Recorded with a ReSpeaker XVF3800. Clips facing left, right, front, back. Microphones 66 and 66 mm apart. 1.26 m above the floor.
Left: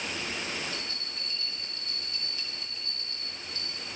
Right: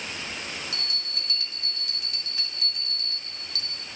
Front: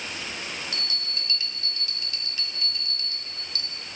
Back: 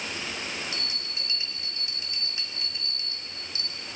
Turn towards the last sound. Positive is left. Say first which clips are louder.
# right 2 dB, front 1 dB
turn(degrees=-115)